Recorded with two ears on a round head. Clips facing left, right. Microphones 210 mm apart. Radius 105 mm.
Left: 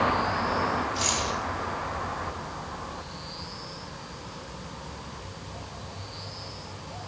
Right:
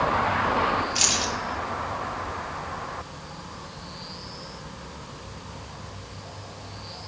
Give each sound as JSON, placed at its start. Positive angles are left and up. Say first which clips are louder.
{"t": 0.9, "sound": "keys jangling", "louder": "right 1 dB", "side_deg": -85, "distance_m": 7.0}